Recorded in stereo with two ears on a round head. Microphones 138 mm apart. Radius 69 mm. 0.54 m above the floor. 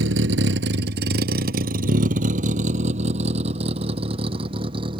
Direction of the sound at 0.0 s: 90° right.